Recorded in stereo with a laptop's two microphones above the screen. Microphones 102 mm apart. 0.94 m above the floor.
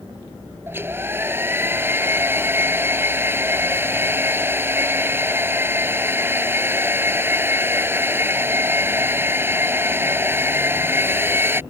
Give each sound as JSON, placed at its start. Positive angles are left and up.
{"t": 0.7, "sound": "a hair dryer", "side_deg": -20}